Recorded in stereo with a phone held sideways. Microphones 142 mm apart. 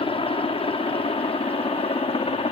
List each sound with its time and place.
0.0 s a helicopter: 40° left (ahead or behind); by 2.5 s 45° left (ahead or behind)